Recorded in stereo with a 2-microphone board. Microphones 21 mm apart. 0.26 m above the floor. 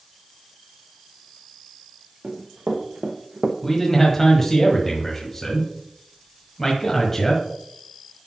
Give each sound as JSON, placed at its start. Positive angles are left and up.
{"t": 2.2, "sound": "running footsteps", "side_deg": -65, "distance_m": 2.5}
{"t": 3.6, "sound": "a man speaking", "side_deg": 20, "distance_m": 1.4}